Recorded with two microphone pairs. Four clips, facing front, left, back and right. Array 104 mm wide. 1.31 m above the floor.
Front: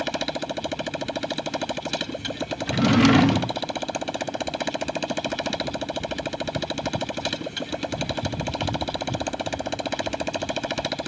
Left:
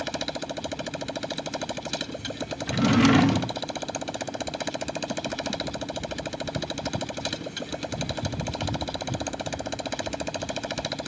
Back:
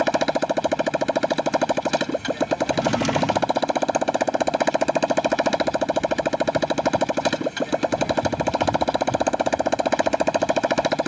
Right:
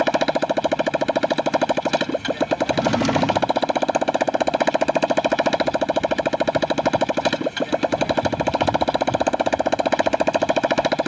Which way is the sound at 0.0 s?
120° right.